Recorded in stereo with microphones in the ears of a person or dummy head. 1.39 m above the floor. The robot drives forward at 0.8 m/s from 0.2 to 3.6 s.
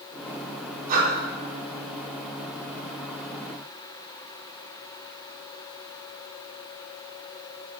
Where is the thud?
I don't hear a thud.